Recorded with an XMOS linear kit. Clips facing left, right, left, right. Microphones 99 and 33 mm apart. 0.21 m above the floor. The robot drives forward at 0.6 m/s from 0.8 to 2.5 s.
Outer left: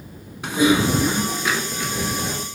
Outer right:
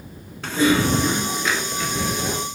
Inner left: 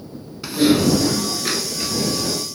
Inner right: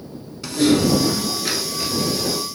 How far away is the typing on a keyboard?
About 0.6 m.